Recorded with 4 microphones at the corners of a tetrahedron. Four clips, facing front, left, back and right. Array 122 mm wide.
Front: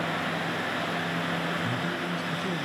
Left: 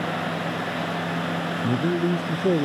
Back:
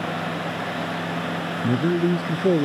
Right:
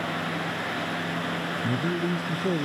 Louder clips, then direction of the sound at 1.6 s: Left 5 dB, back 10 dB; 160° left.